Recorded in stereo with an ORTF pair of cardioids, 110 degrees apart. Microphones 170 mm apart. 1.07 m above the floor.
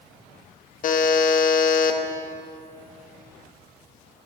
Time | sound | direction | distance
0.8 | a buzzer | 50° left | 1.1 m